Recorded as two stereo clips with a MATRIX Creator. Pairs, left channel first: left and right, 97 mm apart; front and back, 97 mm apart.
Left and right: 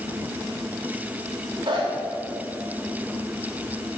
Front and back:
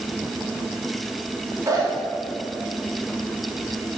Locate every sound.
1.7 s a zipper: 125° right, 2.5 m